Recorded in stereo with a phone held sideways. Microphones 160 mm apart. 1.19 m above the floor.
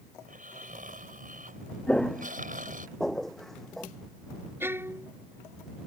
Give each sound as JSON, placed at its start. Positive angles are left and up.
{"t": 0.2, "sound": "snoring", "side_deg": -60}
{"t": 1.9, "sound": "footsteps", "side_deg": 5}
{"t": 4.6, "sound": "a violin", "side_deg": -15}